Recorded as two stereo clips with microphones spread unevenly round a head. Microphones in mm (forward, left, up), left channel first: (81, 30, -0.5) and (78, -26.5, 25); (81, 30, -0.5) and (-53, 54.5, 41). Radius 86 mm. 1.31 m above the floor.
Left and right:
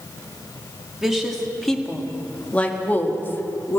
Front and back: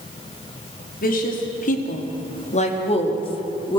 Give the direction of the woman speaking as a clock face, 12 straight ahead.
12 o'clock.